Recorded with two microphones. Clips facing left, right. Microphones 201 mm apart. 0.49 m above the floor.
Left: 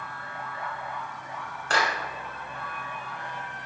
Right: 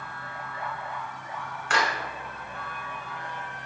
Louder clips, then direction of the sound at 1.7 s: Even; 40° left (ahead or behind).